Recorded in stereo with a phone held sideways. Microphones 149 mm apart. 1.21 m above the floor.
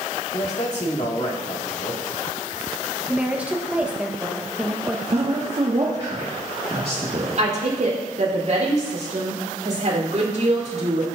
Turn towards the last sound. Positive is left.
turn(degrees=-55)  # may be behind; listen again after turning